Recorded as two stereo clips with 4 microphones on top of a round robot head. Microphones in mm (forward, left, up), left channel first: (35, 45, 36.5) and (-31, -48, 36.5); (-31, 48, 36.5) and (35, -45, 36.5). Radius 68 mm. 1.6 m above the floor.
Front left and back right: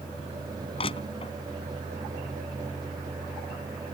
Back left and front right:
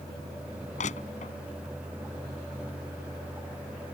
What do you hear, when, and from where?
0.8 s crushing: 100° left